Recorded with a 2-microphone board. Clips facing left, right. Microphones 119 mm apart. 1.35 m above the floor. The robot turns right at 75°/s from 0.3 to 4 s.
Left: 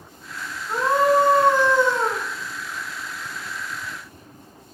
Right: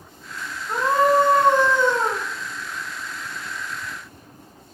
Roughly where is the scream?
Behind.